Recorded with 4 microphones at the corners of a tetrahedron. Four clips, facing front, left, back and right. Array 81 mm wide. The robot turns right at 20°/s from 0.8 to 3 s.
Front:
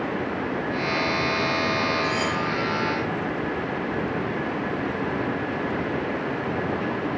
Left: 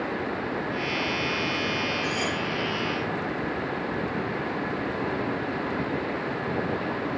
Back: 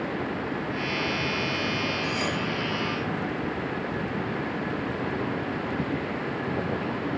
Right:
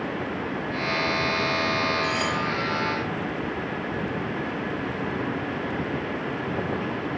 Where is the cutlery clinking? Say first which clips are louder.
Right 2 dB, front 4 dB; 100° right, 2 m; by 2.4 s 90° right, 2 m.